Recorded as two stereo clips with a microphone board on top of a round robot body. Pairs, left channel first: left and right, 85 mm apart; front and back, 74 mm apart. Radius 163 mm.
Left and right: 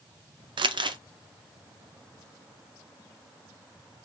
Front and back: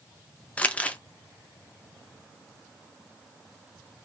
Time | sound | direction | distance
0.6 | crumpling | 70° right | 0.6 m